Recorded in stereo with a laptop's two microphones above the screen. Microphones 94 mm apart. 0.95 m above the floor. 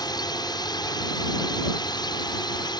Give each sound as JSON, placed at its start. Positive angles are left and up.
{"t": 0.0, "sound": "a drone", "side_deg": 45}